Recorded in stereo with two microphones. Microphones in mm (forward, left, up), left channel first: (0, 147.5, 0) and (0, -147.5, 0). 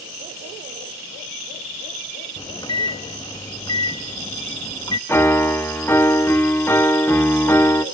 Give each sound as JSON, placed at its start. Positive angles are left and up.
{"t": 2.4, "sound": "a microwave", "side_deg": 15, "distance_m": 0.5}
{"t": 5.1, "sound": "a piano", "side_deg": 10, "distance_m": 1.2}